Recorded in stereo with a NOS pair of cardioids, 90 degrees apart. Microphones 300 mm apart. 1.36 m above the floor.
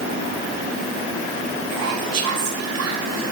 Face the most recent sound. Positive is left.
turn(degrees=-60)